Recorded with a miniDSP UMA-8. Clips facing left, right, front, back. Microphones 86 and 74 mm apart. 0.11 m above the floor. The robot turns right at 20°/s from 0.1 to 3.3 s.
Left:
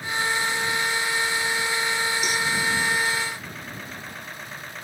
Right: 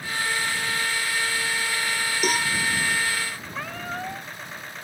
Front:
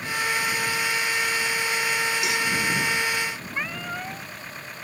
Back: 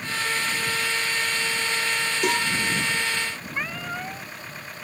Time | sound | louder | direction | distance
2.2 | a cowbell | right 2 dB, back 2 dB | 135° right | ?
3.5 | a cat meowing | right 6 dB, back 2 dB | 90° right | ?